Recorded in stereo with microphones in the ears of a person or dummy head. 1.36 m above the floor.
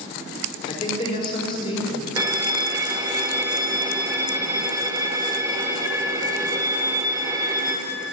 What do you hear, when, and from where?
0.7 s a man speaking: 25° left (ahead or behind), 3.5 m; by 2.1 s 30° left (ahead or behind), 5 m
2.2 s a violin: 20° right (ahead or behind), 1.8 m